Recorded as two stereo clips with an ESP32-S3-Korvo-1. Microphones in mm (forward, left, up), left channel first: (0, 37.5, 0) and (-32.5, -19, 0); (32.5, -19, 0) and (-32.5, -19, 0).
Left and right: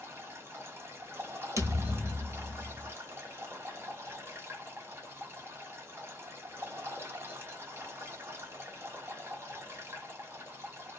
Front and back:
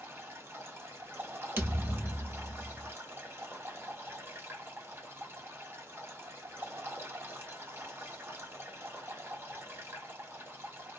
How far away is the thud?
About 1.2 m.